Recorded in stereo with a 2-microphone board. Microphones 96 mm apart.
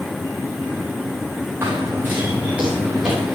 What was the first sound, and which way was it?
Running footsteps, 25° right (ahead or behind).